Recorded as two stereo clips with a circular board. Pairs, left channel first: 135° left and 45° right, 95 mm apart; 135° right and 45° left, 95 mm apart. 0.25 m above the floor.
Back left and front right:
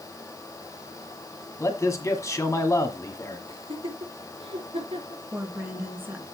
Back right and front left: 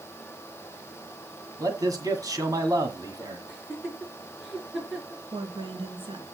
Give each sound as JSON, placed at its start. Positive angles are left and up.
{"t": 1.6, "sound": "a man speaking", "azimuth_deg": 85, "distance_m": 1.8}
{"t": 3.5, "sound": "laughter", "azimuth_deg": -40, "distance_m": 6.0}
{"t": 5.3, "sound": "a woman speaking", "azimuth_deg": 20, "distance_m": 2.5}